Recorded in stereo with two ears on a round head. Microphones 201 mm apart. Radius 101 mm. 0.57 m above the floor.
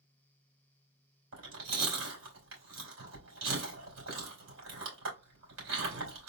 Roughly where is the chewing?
Right.